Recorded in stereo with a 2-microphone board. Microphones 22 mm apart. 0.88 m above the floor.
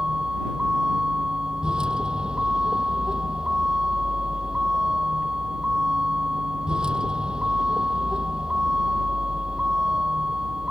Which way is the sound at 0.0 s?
40° right (ahead or behind).